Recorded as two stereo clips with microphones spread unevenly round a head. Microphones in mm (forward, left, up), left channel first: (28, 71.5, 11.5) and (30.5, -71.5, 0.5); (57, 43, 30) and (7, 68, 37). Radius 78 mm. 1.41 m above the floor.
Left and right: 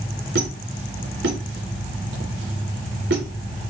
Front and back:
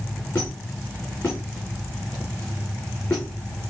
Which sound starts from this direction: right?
A squeak, at 0.3 s.